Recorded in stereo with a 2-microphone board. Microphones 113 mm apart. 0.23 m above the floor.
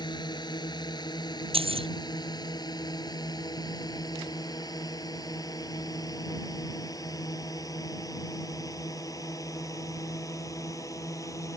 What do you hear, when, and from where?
0.0 s a drone: 40° left (ahead or behind); by 11.6 s 30° left (ahead or behind)
1.5 s keys jangling: 55° right (ahead or behind)